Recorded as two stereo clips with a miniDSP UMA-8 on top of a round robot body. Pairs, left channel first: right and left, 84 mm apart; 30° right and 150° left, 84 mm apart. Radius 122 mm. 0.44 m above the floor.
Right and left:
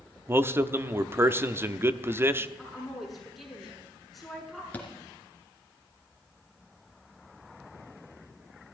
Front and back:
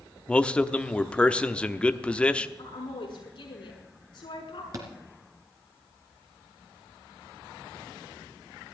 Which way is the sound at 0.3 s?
40° left.